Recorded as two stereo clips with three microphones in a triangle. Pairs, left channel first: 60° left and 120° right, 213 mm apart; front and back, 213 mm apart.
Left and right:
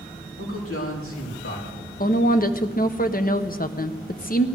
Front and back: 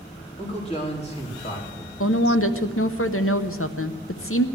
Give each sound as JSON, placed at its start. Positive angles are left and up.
{"t": 0.4, "sound": "a man speaking", "azimuth_deg": 60, "distance_m": 3.5}
{"t": 2.0, "sound": "a woman speaking", "azimuth_deg": 10, "distance_m": 0.8}